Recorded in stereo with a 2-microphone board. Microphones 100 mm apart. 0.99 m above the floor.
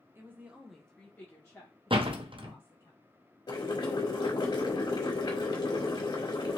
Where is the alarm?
No alarm in this recording.